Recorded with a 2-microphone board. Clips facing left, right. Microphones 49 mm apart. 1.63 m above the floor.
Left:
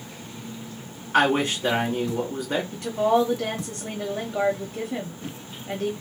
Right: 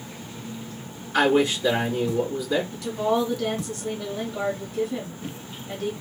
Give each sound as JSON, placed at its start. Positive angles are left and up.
{"t": 1.1, "sound": "a man speaking", "side_deg": 55, "distance_m": 1.6}
{"t": 2.7, "sound": "a woman speaking", "side_deg": 35, "distance_m": 0.7}